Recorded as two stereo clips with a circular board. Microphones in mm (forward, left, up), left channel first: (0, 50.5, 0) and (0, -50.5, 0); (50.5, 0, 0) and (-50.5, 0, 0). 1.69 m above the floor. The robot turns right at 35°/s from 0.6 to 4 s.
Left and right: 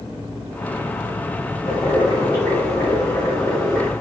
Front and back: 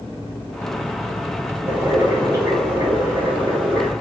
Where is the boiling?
110° left, 1.8 m; by 3.9 s 170° right, 1.8 m.